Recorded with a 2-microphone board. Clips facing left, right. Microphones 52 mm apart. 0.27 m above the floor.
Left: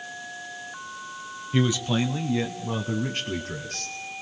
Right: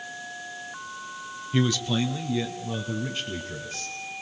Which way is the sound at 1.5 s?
10° left (ahead or behind).